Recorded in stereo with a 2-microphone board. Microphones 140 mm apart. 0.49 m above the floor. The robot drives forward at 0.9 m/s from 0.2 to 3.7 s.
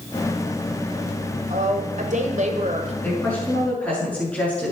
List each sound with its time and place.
1.5 s a woman speaking: 60° right (ahead or behind), 1.9 m; by 2.9 s 55° right (ahead or behind), 2 m
3.0 s a woman speaking: 10° left (ahead or behind), 6.5 m